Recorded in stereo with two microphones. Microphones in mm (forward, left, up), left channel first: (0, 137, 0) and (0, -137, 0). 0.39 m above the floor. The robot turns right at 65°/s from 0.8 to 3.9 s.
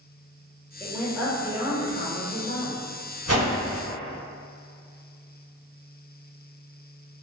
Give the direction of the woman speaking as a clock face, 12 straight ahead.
7 o'clock.